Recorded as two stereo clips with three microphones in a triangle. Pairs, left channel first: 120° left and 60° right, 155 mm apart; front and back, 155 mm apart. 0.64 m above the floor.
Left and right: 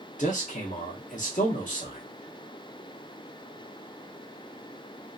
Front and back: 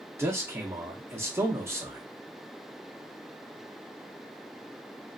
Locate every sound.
0.2 s a man speaking: 110° left, 0.9 m